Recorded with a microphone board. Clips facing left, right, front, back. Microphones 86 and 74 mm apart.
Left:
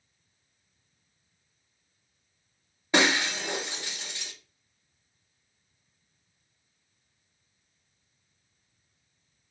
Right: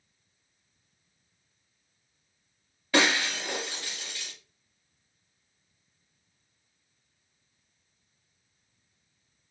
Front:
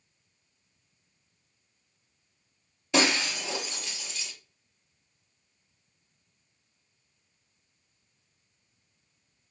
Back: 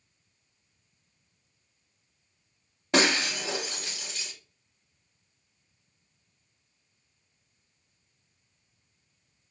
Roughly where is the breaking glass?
Behind left.